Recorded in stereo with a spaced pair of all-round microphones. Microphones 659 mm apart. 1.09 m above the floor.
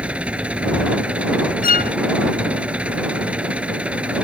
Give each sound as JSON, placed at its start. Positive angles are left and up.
{"t": 0.0, "sound": "an engine running", "side_deg": 0}
{"t": 1.6, "sound": "a violin", "side_deg": 40}